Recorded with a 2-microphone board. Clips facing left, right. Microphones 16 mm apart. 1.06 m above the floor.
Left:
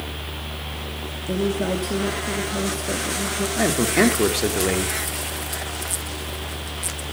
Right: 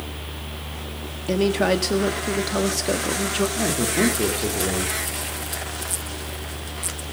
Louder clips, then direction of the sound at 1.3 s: Right 4 dB; 70° right (ahead or behind).